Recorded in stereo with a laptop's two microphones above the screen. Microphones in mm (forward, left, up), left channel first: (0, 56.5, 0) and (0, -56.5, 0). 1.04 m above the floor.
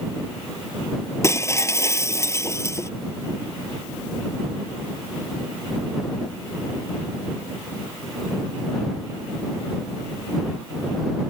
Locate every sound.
1.2 s breaking glass: 25° left (ahead or behind)